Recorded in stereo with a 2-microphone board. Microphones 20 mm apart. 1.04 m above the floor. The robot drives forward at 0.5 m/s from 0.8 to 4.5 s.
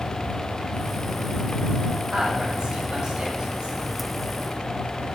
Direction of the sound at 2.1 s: 50° right (ahead or behind).